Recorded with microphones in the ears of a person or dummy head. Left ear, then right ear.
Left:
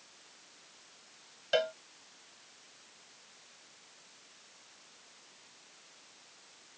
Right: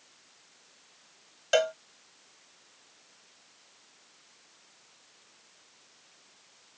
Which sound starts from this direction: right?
A cowbell, at 1.5 s.